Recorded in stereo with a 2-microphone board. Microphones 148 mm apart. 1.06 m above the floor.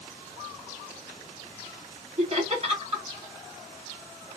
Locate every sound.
2.2 s laughter: 45° right (ahead or behind), 2.0 m